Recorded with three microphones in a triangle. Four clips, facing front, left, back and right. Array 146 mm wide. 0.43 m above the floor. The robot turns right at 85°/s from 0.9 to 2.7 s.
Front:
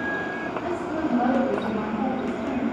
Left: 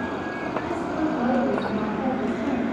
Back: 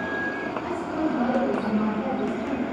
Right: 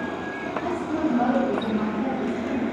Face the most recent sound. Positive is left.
turn(degrees=110)